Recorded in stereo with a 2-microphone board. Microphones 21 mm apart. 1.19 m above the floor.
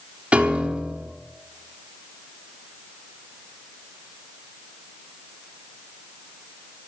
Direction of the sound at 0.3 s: 65° right (ahead or behind).